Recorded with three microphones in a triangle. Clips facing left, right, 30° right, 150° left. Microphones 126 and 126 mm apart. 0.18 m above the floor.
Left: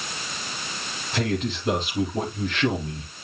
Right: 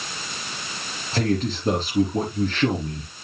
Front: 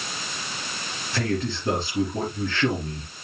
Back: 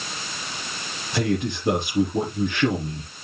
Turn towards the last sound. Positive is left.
turn(degrees=-135)